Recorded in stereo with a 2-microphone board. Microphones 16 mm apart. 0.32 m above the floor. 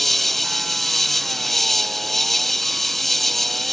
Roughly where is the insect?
Centre.